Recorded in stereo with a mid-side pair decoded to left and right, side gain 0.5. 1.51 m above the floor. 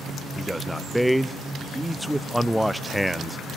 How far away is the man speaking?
About 0.6 m.